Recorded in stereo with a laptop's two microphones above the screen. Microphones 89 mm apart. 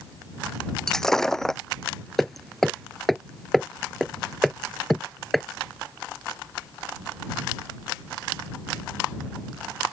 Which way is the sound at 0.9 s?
5° left (ahead or behind).